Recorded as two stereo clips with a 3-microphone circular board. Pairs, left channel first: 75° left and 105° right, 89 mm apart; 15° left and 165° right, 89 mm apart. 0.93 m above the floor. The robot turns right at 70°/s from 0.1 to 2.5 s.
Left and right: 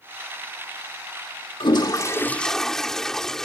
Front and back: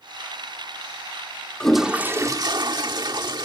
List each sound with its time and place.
1.6 s a toilet flushing: 95° left; by 3.5 s 160° left